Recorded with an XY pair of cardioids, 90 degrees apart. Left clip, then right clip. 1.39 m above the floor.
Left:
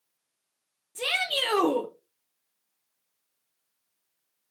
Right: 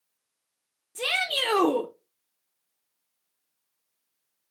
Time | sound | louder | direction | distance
0.9 | a shout | right 1 dB | 15° right | 0.7 m